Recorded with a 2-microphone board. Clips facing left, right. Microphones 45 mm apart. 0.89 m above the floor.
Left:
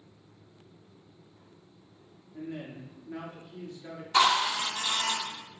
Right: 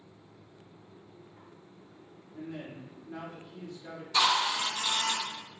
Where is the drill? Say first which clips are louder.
Left 3 dB; 45° left (ahead or behind), 1.6 m.